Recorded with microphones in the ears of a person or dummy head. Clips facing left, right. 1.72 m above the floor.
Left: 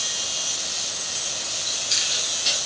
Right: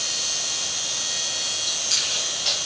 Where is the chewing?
20° right (ahead or behind), 5 m.